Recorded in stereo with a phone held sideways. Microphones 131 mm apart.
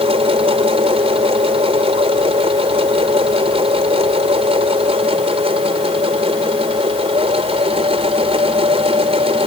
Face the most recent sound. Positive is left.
turn(degrees=-50)  # may be behind; listen again after turning